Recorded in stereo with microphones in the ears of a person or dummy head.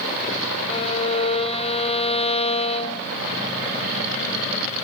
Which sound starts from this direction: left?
A violin, at 0.7 s.